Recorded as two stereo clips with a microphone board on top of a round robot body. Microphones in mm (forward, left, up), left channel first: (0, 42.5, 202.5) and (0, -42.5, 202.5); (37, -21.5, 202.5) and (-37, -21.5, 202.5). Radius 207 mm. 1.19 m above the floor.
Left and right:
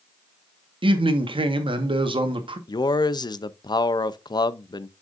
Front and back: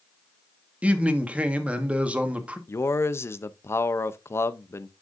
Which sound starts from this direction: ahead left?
A man speaking, at 2.7 s.